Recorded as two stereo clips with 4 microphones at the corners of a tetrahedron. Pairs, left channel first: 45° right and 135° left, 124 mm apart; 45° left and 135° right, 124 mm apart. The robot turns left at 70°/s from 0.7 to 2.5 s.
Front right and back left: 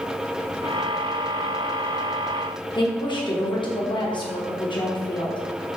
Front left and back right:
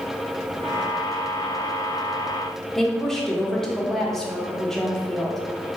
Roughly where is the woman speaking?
Ahead right.